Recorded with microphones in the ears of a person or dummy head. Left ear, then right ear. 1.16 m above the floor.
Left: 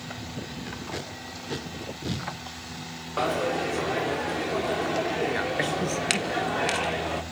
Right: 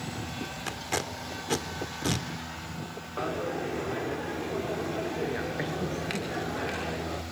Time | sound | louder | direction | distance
0.7 | tape being pulled | right 6 dB | 40° right (ahead or behind) | 2 m
3.2 | a dropped coin | left 6 dB | 25° left (ahead or behind) | 0.9 m